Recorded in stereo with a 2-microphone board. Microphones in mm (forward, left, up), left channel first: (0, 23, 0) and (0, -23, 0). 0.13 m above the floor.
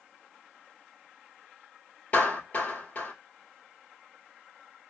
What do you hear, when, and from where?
2.1 s a clap: 35° left (ahead or behind), 1.8 m